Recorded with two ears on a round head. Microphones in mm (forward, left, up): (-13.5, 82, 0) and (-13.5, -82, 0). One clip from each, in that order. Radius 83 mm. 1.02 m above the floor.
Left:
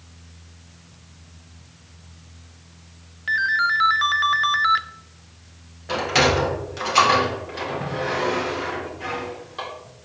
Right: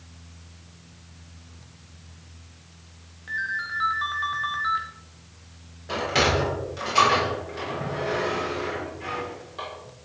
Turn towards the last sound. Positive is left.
turn(degrees=30)  # may be behind; listen again after turning